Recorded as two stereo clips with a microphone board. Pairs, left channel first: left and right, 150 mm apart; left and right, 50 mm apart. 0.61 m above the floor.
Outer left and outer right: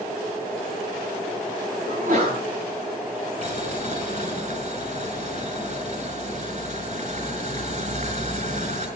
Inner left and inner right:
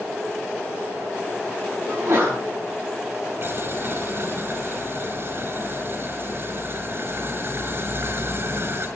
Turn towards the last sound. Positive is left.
turn(degrees=-50)  # may be behind; listen again after turning